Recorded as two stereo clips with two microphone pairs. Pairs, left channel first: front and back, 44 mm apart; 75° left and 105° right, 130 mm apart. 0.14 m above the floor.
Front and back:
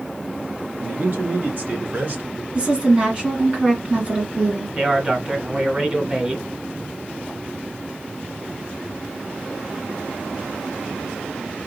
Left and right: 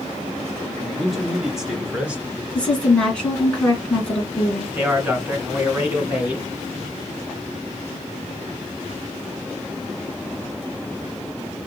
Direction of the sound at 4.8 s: 160° right.